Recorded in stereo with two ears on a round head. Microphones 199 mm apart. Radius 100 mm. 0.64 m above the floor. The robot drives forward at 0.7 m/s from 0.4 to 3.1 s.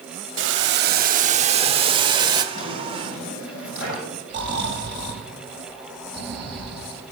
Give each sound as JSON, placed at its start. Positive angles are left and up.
{"t": 0.4, "sound": "boiling", "side_deg": -60, "distance_m": 0.6}
{"t": 2.5, "sound": "a drawer", "side_deg": 70, "distance_m": 7.5}
{"t": 4.3, "sound": "snoring", "side_deg": -20, "distance_m": 5.5}